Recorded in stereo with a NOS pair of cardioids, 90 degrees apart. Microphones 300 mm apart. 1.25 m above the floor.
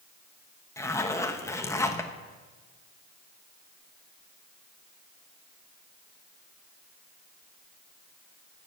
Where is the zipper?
10° left, 1.3 m.